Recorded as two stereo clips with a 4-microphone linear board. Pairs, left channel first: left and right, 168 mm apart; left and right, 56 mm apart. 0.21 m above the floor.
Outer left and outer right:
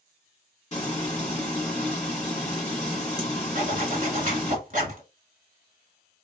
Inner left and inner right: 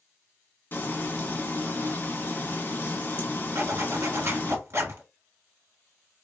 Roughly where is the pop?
I don't hear a pop.